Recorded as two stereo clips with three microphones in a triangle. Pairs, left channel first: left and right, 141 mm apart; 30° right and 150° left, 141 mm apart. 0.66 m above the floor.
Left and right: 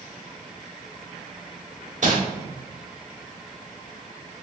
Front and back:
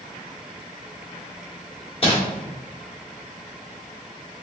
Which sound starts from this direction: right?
Crumpling, at 2.0 s.